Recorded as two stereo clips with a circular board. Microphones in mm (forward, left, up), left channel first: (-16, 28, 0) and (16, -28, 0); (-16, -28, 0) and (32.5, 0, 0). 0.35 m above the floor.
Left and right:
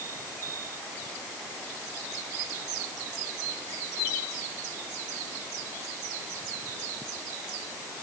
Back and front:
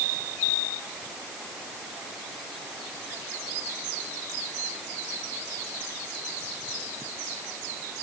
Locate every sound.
Only background noise.